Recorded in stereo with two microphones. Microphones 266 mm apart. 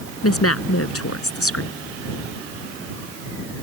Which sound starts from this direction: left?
A woman speaking, at 0.2 s.